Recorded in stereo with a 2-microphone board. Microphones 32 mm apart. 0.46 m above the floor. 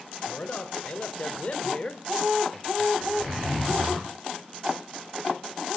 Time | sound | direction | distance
0.2 | a man speaking | 60° left (ahead or behind) | 2.5 m
3.0 | a zipper | centre (ahead or behind) | 9 m